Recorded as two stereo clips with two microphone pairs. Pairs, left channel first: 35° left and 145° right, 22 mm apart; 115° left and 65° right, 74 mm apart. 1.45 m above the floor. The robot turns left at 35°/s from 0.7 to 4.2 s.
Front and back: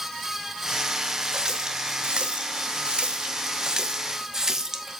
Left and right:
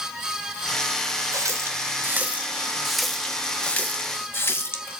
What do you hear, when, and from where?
1.3 s a running tap: 95° right, 0.8 m; by 5.0 s 165° left, 0.8 m